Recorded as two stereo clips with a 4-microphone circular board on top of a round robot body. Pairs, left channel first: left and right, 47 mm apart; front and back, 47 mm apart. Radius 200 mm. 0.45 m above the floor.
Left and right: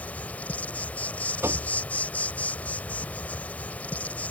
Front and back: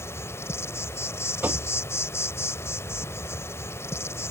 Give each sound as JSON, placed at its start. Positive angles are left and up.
{"t": 0.0, "sound": "an insect", "azimuth_deg": 30}
{"t": 1.4, "sound": "knocking", "azimuth_deg": -125}